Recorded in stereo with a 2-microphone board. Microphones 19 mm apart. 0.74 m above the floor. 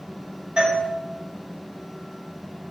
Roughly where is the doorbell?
Right.